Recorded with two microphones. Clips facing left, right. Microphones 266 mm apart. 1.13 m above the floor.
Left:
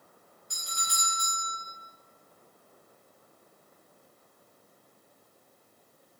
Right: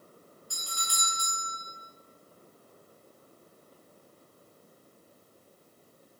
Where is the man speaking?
No man speaking in this recording.